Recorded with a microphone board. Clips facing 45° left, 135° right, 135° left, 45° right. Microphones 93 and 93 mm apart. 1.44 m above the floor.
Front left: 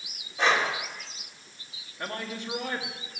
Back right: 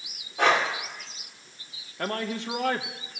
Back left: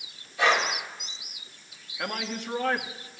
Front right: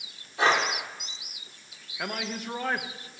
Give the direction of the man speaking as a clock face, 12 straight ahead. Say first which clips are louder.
Back right 5 dB, back left 1 dB; 4 o'clock.